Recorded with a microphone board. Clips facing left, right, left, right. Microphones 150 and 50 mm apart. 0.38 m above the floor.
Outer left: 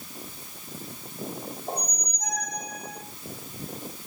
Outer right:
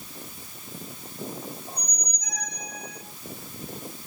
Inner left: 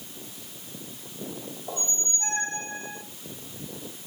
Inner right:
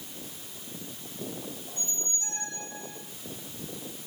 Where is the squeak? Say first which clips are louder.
Outer left 7 dB, inner left 5 dB; 50° left (ahead or behind), 1.1 m.